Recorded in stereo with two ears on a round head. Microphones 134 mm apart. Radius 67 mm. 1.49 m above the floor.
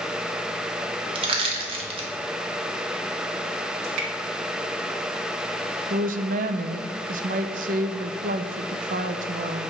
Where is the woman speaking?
60° right (ahead or behind), 0.7 m.